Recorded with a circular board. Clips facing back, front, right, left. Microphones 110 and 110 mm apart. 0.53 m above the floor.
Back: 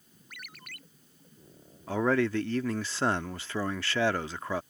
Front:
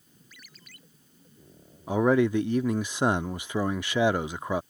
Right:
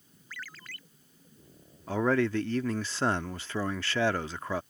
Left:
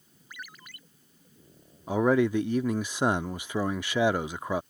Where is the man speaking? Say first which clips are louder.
Front 4 dB, left 3 dB; 45° left.